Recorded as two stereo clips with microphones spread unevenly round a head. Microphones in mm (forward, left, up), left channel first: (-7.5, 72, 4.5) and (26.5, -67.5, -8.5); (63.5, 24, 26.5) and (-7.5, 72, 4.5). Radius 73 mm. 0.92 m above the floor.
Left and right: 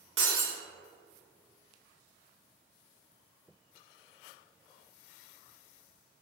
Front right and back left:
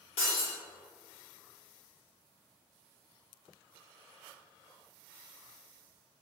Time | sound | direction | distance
0.2 | breaking glass | 80° right | 1.0 m